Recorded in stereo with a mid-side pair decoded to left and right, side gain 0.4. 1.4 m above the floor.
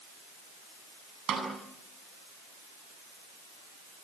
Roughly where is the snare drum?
Ahead right.